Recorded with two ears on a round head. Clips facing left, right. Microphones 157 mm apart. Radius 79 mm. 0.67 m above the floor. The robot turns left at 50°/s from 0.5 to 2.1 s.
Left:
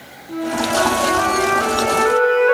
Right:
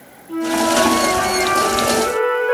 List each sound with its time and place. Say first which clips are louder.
0.3 s a flute: right 3 dB; 160° left, 6.5 m; by 2.5 s 80° left, 6.5 m